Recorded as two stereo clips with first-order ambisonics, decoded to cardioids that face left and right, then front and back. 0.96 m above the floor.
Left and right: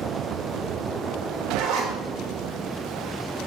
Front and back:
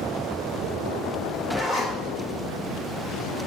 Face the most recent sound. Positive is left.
turn(degrees=-100)